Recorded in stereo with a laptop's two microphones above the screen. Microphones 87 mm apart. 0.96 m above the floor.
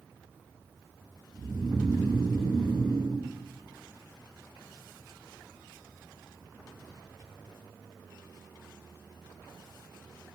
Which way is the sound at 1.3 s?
70° right (ahead or behind).